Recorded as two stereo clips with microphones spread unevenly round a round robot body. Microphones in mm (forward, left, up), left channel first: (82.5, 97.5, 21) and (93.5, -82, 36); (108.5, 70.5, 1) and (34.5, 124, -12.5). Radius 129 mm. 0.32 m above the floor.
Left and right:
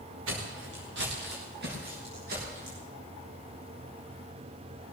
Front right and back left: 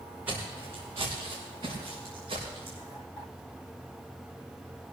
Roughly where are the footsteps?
Behind right.